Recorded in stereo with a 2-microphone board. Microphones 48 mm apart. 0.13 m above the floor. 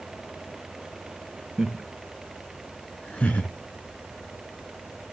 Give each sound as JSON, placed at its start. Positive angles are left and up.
{"t": 1.6, "sound": "laughter", "side_deg": -15, "distance_m": 1.1}